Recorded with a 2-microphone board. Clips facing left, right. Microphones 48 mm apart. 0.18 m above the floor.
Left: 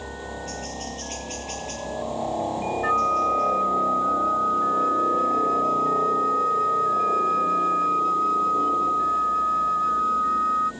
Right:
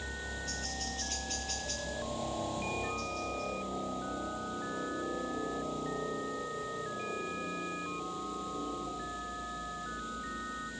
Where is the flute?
75° left (ahead or behind).